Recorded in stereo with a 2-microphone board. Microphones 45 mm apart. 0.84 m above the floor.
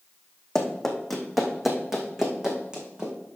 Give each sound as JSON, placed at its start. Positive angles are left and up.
{"t": 0.6, "sound": "running footsteps", "side_deg": 10, "distance_m": 2.0}